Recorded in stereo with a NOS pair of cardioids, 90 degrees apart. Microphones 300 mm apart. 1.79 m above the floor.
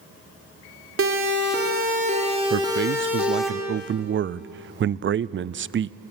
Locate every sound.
1.0 s a siren: 45° right, 4.5 m; by 3.5 s straight ahead, 5 m
2.5 s a man speaking: 40° right, 0.5 m